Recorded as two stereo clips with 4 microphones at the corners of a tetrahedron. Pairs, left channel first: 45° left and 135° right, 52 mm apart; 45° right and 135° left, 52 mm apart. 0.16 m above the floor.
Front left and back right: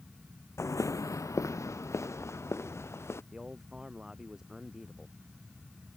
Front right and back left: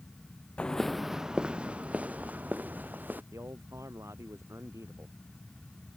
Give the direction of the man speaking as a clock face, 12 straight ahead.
7 o'clock.